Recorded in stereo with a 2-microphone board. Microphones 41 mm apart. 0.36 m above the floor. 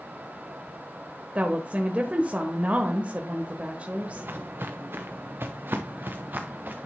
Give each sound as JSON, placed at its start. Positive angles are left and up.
{"t": 1.4, "sound": "a woman speaking", "side_deg": -35, "distance_m": 1.1}
{"t": 4.0, "sound": "footsteps", "side_deg": -65, "distance_m": 1.5}